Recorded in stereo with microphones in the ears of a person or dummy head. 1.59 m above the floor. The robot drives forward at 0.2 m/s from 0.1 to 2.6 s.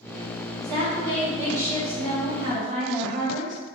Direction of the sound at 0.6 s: 50° right (ahead or behind).